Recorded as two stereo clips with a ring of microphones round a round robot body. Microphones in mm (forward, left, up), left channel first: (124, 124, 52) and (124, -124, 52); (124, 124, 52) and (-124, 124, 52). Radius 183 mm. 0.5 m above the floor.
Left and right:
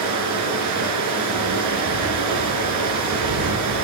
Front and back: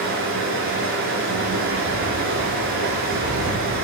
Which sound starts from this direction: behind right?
Running water, at 0.0 s.